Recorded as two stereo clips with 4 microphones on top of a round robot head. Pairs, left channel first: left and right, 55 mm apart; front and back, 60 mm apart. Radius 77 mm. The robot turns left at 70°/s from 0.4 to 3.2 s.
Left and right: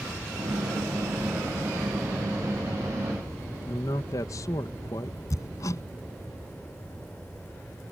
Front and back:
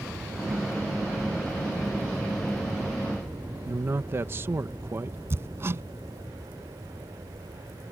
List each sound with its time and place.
3.7 s a man speaking: 130° left
5.3 s hammering: 130° left